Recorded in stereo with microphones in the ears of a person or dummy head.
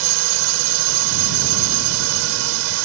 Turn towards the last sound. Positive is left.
turn(degrees=-75)  # may be behind; listen again after turning